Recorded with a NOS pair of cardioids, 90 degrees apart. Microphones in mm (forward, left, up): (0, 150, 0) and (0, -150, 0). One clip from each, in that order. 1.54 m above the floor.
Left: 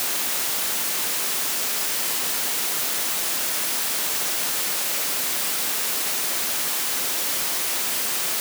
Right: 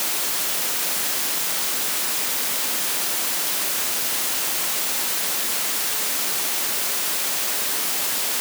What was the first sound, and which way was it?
Only background noise.